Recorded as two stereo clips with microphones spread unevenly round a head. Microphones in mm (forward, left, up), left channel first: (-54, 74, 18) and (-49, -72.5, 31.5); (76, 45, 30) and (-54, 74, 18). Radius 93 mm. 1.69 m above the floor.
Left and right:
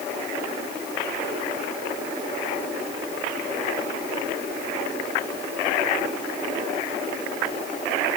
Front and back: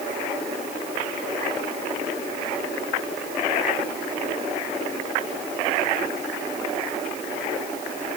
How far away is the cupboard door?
No cupboard door in this recording.